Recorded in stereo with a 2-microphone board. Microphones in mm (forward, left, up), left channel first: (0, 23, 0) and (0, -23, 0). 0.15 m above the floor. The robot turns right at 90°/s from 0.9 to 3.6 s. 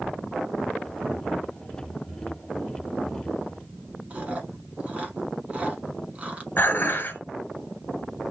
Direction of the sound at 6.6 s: 45° left (ahead or behind).